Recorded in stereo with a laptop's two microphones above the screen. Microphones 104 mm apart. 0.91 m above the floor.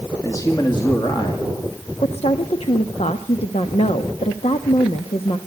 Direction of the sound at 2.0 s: 75° left (ahead or behind).